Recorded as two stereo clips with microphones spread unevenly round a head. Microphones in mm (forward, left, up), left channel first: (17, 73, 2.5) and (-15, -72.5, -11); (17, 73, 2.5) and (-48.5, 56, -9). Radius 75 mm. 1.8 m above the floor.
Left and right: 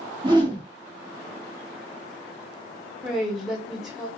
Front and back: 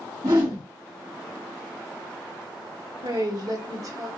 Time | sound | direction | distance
0.2 | a whoosh | 160° right | 2 m
3.0 | a woman speaking | 165° left | 1.4 m